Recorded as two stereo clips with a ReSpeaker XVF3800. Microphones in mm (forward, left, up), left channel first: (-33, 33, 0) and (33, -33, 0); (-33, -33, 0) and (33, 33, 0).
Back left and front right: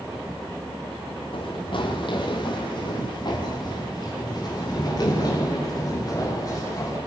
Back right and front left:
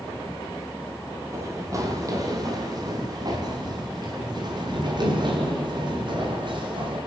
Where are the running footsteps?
105° left, 6 m; by 7.0 s 85° left, 11.5 m.